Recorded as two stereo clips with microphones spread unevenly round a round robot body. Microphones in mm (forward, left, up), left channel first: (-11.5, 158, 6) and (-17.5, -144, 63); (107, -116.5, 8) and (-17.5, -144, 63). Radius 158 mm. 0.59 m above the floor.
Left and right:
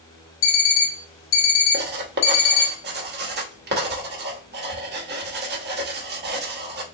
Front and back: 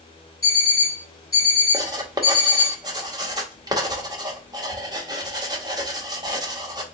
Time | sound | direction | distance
0.4 | an alarm clock | 80° left | 1.3 m
1.7 | writing | 90° right | 1.0 m